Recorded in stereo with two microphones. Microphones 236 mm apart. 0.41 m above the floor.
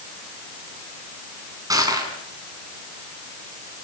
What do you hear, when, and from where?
1.7 s crushing: 15° right (ahead or behind), 5 m